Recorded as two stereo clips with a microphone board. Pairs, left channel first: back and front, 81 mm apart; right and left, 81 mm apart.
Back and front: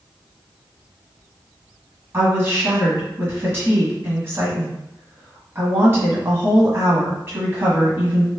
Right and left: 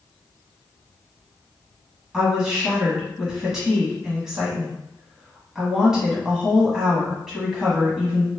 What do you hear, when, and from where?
2.1 s a woman speaking: 15° left, 1.2 m